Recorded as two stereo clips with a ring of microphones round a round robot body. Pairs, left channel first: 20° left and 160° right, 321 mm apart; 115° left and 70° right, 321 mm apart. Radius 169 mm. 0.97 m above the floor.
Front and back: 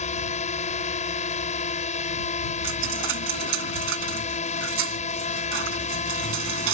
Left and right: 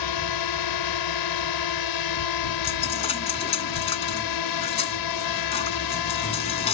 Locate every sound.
0.0 s a drone: 90° left
2.6 s a dropped coin: 175° left